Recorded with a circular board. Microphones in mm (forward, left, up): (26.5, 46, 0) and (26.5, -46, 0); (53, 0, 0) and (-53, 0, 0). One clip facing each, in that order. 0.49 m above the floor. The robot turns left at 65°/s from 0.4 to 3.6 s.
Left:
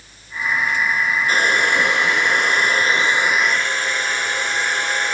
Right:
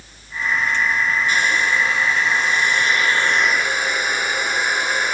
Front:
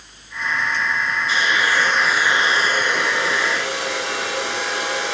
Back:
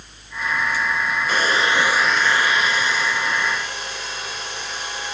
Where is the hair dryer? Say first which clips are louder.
Left 2 dB, even; 140° left, 2 m; by 5.2 s 10° right, 2 m.